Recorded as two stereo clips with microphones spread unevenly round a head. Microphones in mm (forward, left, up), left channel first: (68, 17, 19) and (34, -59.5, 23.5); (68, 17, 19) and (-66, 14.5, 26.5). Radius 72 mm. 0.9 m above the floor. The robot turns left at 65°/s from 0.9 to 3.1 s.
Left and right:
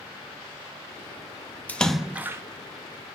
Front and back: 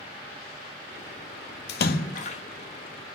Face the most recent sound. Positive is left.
turn(degrees=-100)